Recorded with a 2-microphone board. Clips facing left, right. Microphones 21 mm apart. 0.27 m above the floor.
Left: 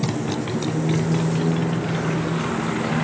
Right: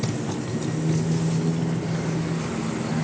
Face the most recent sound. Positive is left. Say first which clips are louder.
# left 3 dB
turn(degrees=40)  # may be behind; listen again after turning